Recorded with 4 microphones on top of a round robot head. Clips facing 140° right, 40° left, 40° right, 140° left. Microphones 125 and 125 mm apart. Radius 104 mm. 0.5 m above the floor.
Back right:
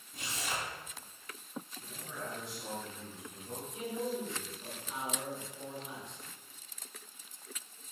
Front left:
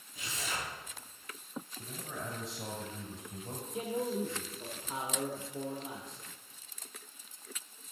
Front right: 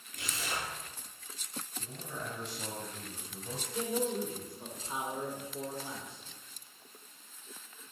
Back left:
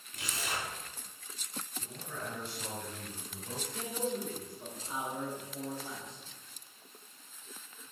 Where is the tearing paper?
170° right, 4 m.